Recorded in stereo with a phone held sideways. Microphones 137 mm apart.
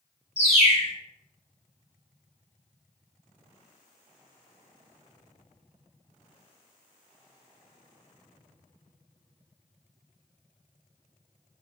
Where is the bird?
45° left (ahead or behind), 0.7 m.